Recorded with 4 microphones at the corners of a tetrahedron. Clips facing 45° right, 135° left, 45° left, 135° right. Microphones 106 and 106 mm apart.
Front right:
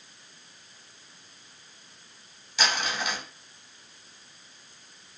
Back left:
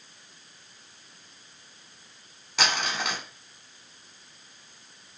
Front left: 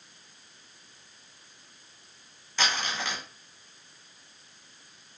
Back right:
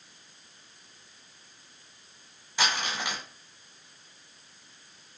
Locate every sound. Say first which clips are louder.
2.6 s crumpling: back left 1 dB, even; 150° left, 0.8 m